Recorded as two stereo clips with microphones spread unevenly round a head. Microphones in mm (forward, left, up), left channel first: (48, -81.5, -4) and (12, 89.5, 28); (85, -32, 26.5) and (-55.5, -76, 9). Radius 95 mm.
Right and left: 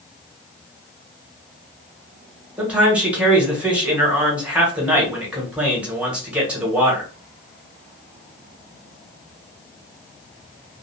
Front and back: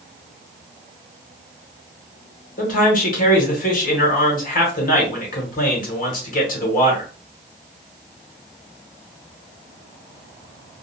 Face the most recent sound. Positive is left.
turn(degrees=15)